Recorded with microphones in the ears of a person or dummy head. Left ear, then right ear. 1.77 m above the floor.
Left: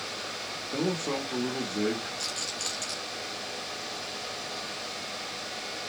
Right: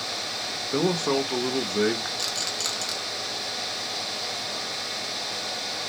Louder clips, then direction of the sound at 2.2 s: Right 5 dB; 45° right (ahead or behind).